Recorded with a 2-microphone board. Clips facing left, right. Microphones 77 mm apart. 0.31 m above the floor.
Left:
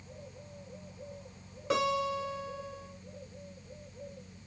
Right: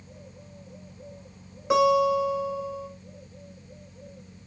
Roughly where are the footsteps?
I don't hear footsteps.